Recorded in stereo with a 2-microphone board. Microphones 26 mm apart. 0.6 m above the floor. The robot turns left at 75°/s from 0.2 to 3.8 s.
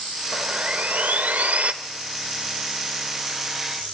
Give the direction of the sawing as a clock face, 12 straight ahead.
1 o'clock.